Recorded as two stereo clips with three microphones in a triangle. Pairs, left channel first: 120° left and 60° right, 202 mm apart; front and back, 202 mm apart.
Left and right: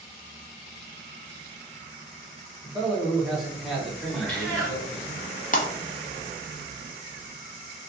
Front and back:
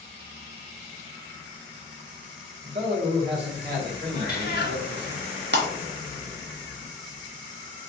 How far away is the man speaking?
About 1.1 m.